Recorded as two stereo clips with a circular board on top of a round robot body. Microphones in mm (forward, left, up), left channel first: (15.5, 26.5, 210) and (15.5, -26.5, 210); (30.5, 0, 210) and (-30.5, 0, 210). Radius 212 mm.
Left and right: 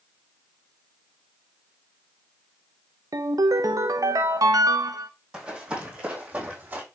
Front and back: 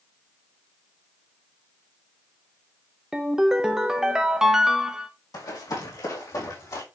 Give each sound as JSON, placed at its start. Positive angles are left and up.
{"t": 3.1, "sound": "a ringtone", "azimuth_deg": -100, "distance_m": 0.9}
{"t": 5.3, "sound": "running footsteps", "azimuth_deg": -15, "distance_m": 4.0}